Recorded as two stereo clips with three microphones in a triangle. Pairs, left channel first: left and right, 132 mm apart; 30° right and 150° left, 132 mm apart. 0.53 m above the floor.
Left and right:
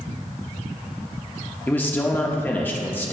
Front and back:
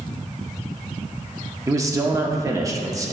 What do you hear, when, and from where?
1.7 s a man speaking: 140° left, 0.8 m